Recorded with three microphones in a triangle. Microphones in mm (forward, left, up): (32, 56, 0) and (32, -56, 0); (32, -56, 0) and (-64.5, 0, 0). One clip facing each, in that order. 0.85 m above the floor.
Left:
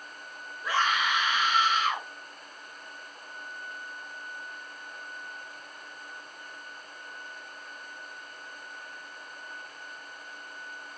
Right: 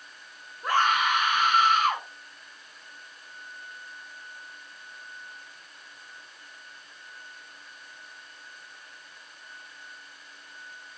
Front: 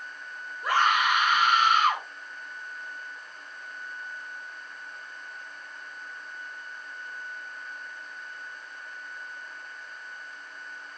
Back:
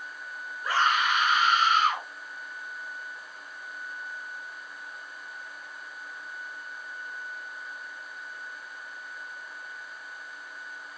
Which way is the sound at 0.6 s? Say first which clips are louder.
Right 4 dB, front 2 dB; 55° right.